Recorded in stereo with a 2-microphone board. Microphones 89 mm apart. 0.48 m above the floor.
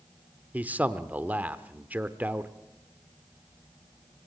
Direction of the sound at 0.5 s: 20° right (ahead or behind).